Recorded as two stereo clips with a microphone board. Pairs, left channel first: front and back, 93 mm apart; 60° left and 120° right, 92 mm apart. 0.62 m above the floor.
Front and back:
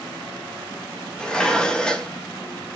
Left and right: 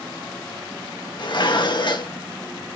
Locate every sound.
1.2 s dishes clattering: 80° left, 0.7 m